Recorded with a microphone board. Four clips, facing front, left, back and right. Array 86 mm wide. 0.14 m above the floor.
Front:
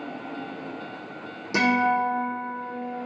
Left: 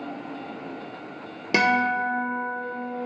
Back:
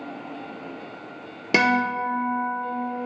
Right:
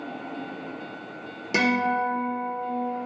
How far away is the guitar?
About 0.7 m.